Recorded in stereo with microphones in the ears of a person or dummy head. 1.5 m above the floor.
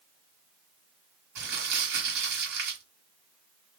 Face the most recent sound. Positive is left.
turn(degrees=-60)  # may be behind; listen again after turning